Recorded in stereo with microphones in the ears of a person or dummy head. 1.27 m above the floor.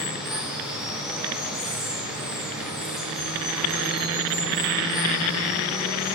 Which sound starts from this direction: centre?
Running water, at 0.0 s.